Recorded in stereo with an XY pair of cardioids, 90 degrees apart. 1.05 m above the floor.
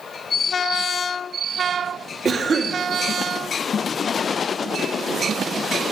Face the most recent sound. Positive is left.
turn(degrees=-45)